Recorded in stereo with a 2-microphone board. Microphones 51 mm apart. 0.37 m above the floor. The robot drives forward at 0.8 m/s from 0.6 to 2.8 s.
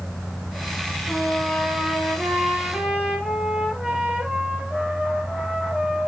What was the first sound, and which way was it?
A trumpet, 15° right (ahead or behind).